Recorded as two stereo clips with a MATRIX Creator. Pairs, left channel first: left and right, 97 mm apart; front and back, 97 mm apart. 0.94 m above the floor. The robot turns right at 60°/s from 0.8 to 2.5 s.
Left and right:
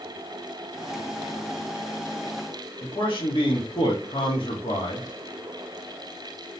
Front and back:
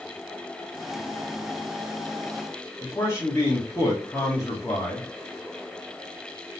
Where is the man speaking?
60° left, 1.4 m.